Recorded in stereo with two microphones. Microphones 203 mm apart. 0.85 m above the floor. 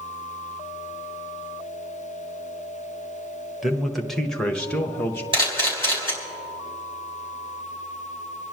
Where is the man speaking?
Centre (ahead or behind), 1.1 m; by 5.2 s 5° left (ahead or behind), 1.1 m.